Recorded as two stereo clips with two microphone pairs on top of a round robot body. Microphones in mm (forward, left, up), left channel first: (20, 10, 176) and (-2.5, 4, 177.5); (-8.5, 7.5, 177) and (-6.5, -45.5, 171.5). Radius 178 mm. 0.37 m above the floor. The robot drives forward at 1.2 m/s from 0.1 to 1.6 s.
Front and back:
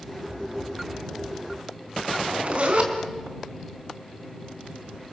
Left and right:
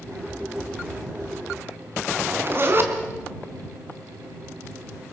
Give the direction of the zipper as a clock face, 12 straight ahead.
4 o'clock.